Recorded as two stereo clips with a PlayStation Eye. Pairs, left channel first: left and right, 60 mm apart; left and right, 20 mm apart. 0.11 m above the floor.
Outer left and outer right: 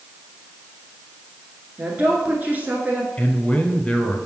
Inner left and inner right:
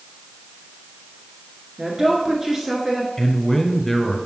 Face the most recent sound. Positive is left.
turn(degrees=15)  # may be behind; listen again after turning